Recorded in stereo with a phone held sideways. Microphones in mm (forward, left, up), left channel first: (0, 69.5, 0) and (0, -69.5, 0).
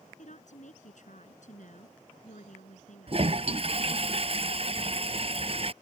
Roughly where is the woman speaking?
Left.